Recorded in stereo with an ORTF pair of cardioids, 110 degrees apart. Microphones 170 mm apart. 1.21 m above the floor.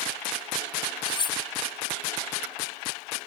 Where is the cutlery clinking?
30° left, 1.2 m.